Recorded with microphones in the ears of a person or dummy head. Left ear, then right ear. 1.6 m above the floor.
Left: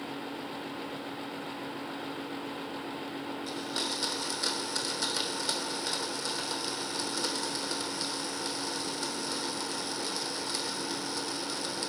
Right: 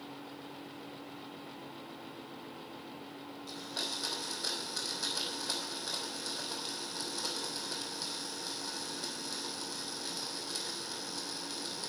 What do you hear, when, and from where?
3.5 s a blender: 75° left (ahead or behind), 3 m